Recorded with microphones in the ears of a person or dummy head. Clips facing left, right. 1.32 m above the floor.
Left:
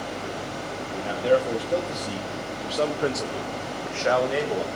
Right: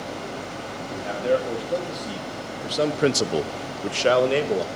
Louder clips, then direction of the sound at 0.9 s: Left 1 dB; 5° left (ahead or behind).